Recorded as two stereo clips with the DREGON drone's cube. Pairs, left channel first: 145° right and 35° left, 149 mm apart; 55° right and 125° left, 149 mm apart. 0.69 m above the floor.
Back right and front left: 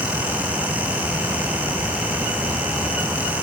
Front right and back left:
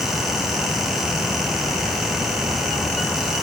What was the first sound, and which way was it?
Only background noise.